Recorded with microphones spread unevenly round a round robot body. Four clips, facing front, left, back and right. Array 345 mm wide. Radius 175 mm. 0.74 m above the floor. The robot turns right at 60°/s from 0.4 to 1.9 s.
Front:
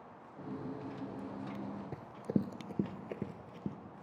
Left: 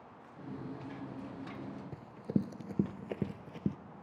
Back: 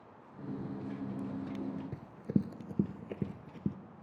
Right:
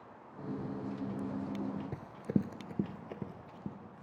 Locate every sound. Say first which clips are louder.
1.9 s running footsteps: left 1 dB, even; 70° right, 0.7 m; by 3.8 s 135° left, 1.0 m